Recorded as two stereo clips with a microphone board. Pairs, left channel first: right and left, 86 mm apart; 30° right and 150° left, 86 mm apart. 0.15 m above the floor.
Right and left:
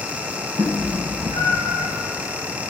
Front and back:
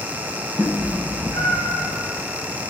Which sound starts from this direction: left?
A cat meowing, at 0.6 s.